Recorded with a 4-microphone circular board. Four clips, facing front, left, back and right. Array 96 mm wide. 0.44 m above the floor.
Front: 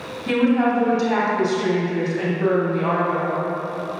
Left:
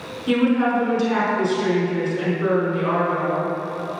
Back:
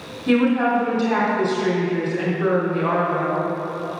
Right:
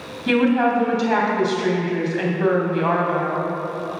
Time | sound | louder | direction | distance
0.3 | a woman speaking | right 1 dB, back 1 dB | 80° right | 3 m